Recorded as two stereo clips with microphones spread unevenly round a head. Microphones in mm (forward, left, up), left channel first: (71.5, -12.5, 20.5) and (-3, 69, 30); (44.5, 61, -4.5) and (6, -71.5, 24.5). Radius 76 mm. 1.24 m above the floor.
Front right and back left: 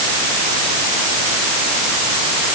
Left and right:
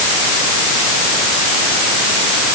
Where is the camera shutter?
No camera shutter in this recording.